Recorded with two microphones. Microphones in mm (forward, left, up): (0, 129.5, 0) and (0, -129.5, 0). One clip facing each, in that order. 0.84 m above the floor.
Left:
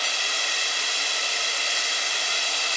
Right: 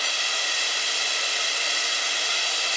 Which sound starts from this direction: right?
Running water, at 0.0 s.